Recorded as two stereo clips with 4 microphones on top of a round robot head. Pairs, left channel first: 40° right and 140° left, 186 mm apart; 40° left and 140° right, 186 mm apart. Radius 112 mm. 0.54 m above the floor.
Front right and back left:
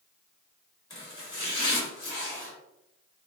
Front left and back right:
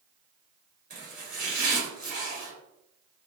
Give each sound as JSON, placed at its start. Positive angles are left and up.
{"t": 0.9, "sound": "chopping", "azimuth_deg": -105, "distance_m": 1.7}